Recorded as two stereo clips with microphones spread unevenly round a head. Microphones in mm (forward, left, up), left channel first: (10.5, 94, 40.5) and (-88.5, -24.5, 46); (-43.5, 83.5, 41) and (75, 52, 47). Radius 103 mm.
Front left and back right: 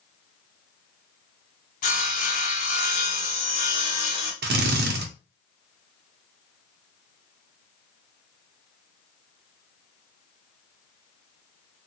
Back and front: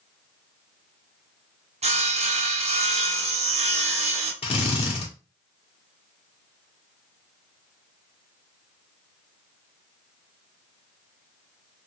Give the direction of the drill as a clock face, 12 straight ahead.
5 o'clock.